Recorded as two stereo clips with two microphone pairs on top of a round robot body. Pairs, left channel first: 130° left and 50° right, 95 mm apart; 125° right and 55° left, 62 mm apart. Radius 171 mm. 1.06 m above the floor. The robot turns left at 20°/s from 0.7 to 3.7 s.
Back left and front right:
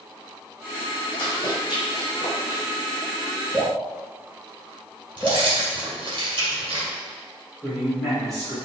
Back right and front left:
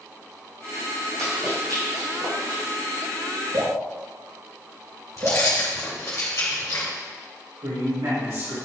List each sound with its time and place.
1.2 s running footsteps: 90° left, 3.5 m; by 2.6 s 80° left, 2.5 m
3.5 s dripping: 60° left, 2 m; by 5.5 s 55° left, 2 m
5.2 s keys jangling: 85° right, 3 m
7.6 s a man speaking: 45° left, 4 m